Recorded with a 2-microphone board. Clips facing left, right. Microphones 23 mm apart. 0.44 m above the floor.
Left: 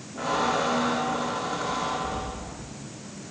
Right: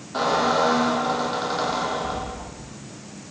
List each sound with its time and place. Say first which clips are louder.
0.1 s a squeak: right 5 dB; 85° right, 9.5 m